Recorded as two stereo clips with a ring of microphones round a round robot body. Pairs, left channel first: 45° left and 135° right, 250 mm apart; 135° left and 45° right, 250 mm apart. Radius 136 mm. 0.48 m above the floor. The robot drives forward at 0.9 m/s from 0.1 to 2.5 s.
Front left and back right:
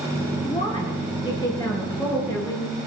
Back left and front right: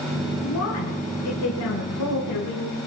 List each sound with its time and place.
0.4 s a woman speaking: 115° left, 7.5 m; by 2.8 s 125° left, 8 m